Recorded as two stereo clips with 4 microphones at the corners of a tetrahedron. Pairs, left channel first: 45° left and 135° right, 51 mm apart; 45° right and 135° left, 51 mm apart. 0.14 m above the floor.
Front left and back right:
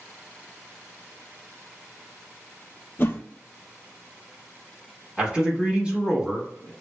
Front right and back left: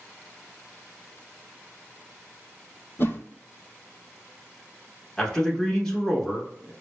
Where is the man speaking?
115° right, 1.1 m.